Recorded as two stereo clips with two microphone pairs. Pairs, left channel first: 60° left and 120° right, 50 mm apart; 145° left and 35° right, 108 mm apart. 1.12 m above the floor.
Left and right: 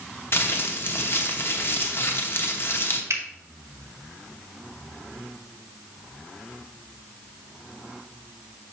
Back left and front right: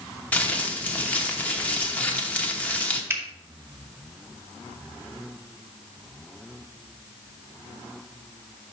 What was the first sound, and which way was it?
Crumpling, 70° left.